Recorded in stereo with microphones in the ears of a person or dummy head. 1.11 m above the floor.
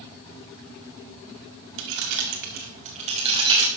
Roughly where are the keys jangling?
Right.